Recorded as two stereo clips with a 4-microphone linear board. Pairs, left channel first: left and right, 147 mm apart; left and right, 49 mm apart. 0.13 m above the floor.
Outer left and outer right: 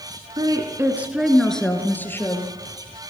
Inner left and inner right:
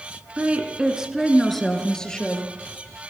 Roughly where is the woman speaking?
Right.